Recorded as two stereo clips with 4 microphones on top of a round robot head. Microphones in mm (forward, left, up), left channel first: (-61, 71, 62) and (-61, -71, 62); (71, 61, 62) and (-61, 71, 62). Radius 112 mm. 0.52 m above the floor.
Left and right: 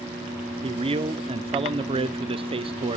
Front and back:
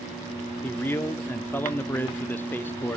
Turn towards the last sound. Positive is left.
turn(degrees=-70)